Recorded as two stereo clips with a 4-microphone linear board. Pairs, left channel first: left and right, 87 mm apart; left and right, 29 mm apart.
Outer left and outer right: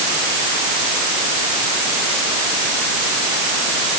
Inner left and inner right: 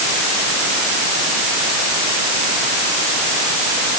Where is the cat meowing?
No cat meowing in this recording.